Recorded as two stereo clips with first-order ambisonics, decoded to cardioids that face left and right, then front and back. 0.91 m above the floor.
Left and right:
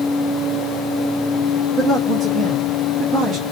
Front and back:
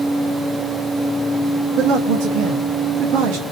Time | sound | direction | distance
1.8 | a man speaking | 160° right | 1.1 m